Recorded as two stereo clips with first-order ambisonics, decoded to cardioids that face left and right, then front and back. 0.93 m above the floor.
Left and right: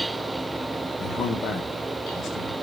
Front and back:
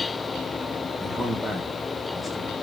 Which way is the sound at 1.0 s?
80° left.